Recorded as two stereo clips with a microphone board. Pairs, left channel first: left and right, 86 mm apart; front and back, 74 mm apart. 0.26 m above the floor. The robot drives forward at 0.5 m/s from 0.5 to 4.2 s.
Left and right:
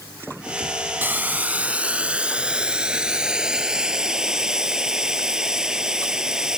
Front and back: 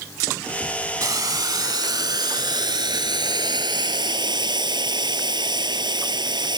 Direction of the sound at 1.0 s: 155° right.